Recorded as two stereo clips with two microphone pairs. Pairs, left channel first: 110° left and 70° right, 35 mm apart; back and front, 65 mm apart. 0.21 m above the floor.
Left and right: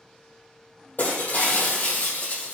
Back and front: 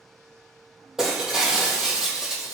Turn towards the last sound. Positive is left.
turn(degrees=80)